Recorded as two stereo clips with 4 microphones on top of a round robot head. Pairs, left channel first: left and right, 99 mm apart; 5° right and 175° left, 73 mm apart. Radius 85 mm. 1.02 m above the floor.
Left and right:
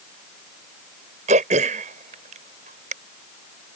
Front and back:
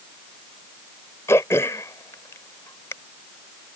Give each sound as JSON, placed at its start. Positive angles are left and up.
{"t": 1.3, "sound": "throat clearing", "azimuth_deg": -70}